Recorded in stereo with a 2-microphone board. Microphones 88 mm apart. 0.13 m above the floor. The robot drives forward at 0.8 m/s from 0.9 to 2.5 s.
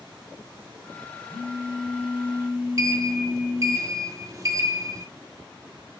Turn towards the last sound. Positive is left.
turn(degrees=-35)  # may be behind; listen again after turning